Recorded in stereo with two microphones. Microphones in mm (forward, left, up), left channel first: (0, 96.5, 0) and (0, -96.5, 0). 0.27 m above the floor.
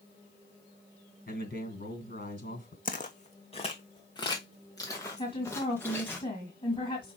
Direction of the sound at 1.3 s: 55° left (ahead or behind).